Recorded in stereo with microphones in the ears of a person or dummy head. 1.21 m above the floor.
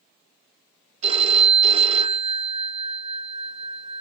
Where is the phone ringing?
45° right (ahead or behind), 0.9 m.